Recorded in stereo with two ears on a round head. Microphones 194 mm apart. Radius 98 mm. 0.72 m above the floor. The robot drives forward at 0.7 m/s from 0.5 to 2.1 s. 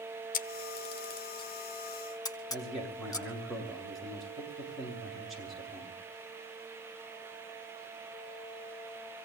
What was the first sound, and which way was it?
A camera shutter, 40° left (ahead or behind).